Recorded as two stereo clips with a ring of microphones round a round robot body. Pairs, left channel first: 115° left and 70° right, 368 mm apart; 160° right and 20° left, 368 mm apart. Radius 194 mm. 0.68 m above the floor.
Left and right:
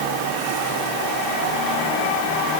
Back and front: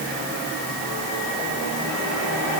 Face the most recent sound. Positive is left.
No sound to turn to.